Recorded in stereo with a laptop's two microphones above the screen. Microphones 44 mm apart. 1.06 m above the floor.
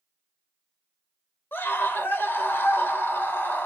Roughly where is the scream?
Left.